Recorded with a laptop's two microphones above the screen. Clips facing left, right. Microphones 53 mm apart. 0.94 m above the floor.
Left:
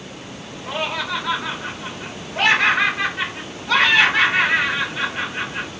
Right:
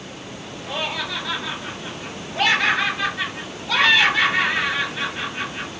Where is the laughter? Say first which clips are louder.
Left 3 dB; 60° left (ahead or behind), 2.5 m.